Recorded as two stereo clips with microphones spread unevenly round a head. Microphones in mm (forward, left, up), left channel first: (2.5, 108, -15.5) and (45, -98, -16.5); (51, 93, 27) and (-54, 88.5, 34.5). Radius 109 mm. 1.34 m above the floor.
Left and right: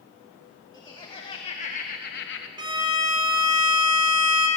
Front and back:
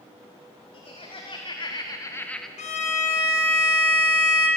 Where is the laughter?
30° left, 2.5 m; by 2.5 s 90° left, 0.9 m.